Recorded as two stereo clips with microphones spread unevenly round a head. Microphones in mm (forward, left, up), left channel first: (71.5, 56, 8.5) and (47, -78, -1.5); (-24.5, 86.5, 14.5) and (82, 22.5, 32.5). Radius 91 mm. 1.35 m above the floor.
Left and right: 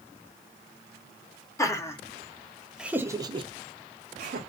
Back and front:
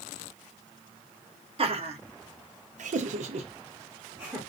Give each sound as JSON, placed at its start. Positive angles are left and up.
{"t": 1.6, "sound": "laughter", "azimuth_deg": 10, "distance_m": 1.1}